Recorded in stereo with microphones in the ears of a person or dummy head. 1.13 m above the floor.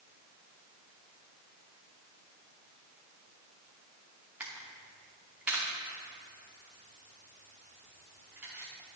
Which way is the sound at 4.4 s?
5° right (ahead or behind).